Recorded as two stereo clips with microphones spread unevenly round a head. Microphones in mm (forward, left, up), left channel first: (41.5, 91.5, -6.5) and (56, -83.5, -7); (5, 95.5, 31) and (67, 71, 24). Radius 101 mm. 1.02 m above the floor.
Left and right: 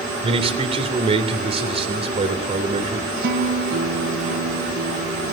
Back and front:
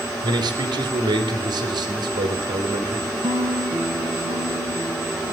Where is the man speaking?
30° right, 3 m.